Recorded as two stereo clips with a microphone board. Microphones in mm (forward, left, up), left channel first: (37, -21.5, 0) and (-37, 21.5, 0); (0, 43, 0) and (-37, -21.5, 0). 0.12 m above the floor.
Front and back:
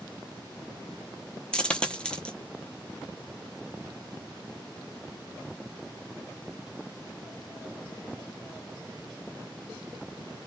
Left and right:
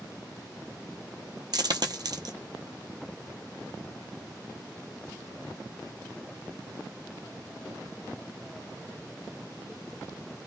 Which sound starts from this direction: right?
A dropped coin, at 1.5 s.